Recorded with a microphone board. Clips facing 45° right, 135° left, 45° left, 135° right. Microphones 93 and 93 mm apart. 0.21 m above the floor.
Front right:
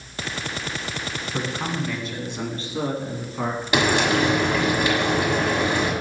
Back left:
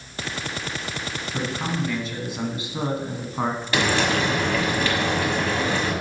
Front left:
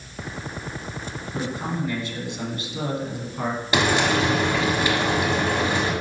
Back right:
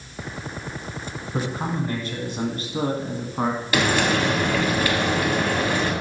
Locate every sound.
1.3 s a man speaking: 115° right, 1.5 m; by 3.6 s straight behind, 1.6 m
3.7 s frying: 10° left, 1.5 m